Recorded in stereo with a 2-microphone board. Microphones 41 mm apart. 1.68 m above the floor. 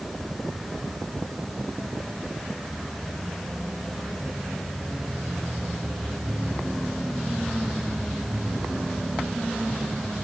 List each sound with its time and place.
Only background noise.